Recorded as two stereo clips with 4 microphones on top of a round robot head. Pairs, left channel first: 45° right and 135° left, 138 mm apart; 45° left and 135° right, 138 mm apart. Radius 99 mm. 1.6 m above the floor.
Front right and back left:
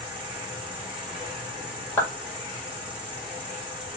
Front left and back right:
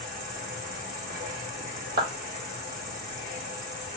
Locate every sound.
0.0 s an insect: 145° right, 1.7 m
2.0 s a clap: 125° right, 1.3 m